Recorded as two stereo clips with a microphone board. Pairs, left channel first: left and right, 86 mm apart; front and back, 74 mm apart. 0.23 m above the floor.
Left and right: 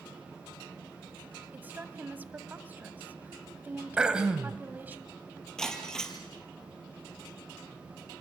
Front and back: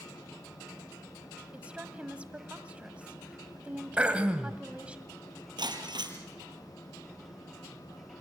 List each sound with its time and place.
1.5 s a woman speaking: 125° right, 1.5 m
4.0 s throat clearing: 145° right, 1.3 m
5.6 s breaking glass: 170° left, 3 m